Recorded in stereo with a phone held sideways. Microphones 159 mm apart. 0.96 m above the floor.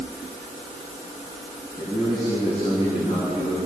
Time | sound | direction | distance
1.8 | a man speaking | 40° left (ahead or behind) | 8.5 m